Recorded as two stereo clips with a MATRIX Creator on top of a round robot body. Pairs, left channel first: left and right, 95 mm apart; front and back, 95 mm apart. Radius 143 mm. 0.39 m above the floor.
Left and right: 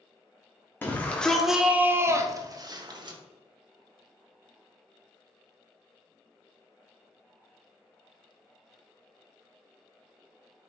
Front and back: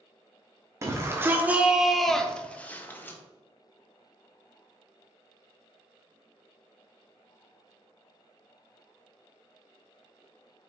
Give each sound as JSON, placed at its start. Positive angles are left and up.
{"t": 0.8, "sound": "a shout", "azimuth_deg": 145, "distance_m": 1.5}